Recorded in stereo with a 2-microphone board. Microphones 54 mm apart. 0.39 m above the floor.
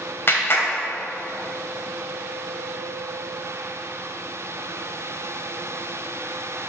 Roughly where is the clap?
Left.